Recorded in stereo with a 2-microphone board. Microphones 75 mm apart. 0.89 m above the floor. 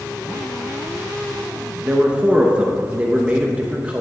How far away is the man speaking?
About 0.9 m.